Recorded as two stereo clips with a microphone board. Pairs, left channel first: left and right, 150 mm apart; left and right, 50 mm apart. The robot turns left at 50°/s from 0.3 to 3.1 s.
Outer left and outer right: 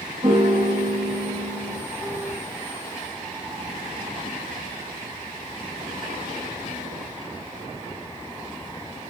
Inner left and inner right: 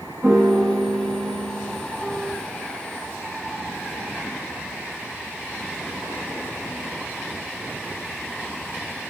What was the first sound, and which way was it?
A piano, 40° right.